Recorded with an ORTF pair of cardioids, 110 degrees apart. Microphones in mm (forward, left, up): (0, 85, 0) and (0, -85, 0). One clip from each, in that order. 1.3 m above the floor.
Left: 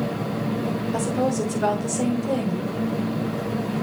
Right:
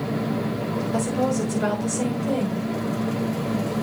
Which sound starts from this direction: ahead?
A woman speaking, at 0.9 s.